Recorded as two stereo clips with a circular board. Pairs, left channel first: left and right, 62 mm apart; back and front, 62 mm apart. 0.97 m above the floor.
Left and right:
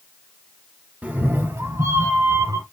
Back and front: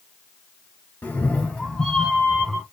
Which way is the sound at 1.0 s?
140° right.